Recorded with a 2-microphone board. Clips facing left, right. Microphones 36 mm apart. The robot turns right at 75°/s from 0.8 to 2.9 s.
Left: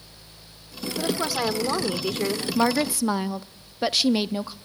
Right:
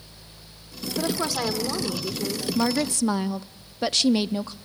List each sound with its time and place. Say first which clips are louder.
1.0 s a woman speaking: left 1 dB; 20° right, 2 m; by 2.5 s 90° left, 2 m
2.5 s a woman speaking: left 2 dB; 30° left (ahead or behind), 0.7 m; by 4.5 s 10° left (ahead or behind), 0.7 m